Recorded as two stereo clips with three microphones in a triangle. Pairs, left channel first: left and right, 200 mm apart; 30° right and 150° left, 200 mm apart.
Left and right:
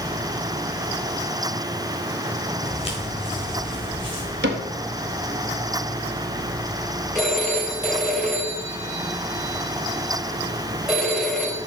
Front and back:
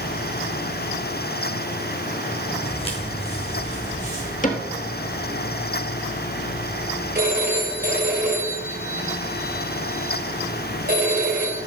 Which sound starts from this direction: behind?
A phone ringing, at 7.2 s.